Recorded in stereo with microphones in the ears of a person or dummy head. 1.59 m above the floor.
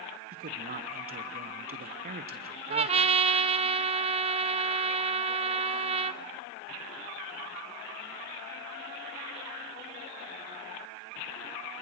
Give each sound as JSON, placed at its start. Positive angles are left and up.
{"t": 0.3, "sound": "a man speaking", "side_deg": -40, "distance_m": 1.0}
{"t": 2.7, "sound": "a trumpet", "side_deg": -30, "distance_m": 0.5}